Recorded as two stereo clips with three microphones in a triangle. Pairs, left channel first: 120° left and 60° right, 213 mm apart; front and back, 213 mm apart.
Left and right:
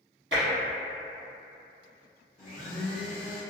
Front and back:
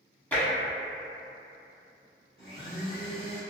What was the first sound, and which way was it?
Tapping, 85° right.